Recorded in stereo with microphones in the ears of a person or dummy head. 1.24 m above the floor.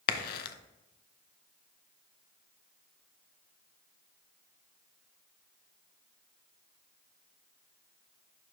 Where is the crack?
60° left (ahead or behind), 0.7 m.